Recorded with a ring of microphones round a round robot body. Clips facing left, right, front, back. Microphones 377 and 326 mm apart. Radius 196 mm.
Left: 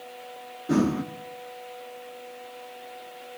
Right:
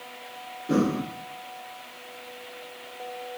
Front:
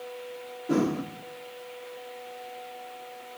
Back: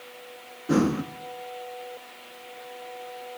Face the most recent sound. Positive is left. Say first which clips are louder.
# left 1 dB, back 3 dB
turn(degrees=150)